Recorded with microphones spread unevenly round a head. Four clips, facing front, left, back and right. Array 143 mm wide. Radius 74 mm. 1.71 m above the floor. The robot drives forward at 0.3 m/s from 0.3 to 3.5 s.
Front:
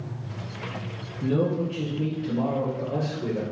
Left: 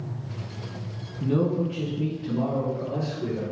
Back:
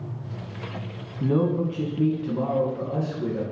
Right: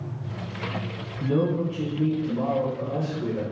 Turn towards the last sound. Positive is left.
turn(degrees=180)